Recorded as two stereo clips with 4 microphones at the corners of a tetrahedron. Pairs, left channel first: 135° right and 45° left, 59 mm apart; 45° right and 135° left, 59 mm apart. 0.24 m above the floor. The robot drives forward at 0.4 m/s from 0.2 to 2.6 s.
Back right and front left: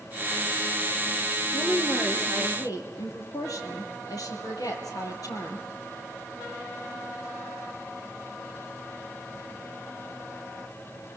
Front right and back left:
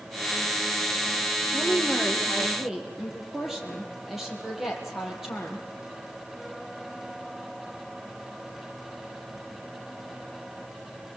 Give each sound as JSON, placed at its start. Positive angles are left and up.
{"t": 1.5, "sound": "a woman speaking", "azimuth_deg": -140, "distance_m": 5.5}